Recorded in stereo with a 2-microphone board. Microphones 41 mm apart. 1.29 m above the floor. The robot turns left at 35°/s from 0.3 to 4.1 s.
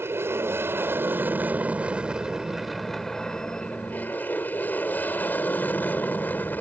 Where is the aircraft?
95° right; by 6.6 s 130° left.